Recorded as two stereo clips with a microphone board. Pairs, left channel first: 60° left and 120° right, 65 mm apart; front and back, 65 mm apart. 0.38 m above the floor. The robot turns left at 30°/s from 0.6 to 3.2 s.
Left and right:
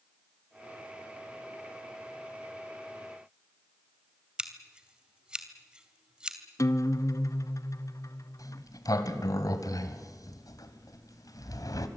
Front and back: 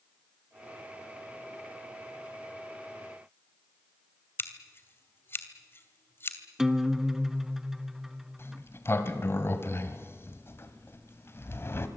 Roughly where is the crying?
No crying in this recording.